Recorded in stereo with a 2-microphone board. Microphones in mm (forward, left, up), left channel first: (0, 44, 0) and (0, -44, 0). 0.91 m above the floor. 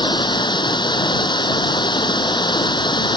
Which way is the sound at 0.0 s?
65° left (ahead or behind).